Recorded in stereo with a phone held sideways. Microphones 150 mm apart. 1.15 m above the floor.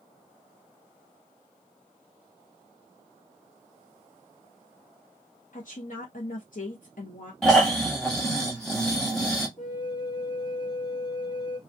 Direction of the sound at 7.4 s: 5° left (ahead or behind).